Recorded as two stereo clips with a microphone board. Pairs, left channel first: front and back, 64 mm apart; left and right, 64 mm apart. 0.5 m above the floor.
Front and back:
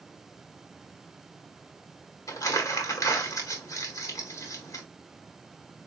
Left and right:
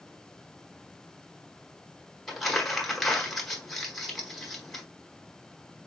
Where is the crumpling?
Straight ahead, 1.3 m.